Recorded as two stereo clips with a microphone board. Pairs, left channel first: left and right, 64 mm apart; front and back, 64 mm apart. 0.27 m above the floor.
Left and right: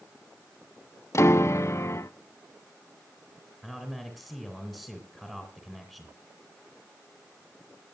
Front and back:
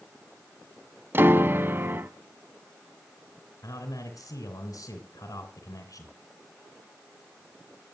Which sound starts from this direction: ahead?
A man speaking, at 3.6 s.